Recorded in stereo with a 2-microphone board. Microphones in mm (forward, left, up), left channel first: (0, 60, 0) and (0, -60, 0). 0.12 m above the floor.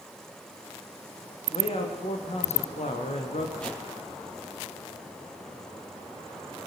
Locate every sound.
1.5 s a man speaking: 55° left (ahead or behind), 6.5 m; by 3.5 s 75° left (ahead or behind), 5 m
3.6 s a whoosh: 10° left (ahead or behind), 4 m